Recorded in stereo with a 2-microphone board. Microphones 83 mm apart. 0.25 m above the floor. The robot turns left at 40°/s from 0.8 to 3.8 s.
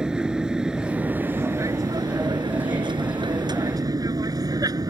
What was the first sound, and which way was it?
An aircraft, 10° right (ahead or behind).